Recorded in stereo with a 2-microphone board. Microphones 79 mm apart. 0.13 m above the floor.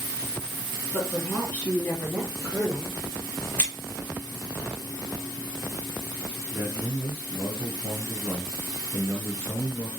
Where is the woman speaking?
35° left (ahead or behind), 1.9 m; by 3.0 s centre (ahead or behind), 2 m.